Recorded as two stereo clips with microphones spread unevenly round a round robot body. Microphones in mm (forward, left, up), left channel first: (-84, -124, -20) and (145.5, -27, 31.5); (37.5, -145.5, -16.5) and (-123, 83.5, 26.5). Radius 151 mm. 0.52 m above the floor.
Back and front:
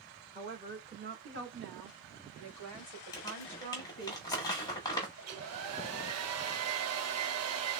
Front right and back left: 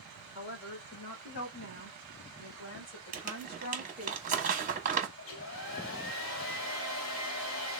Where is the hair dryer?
5° right, 0.7 m.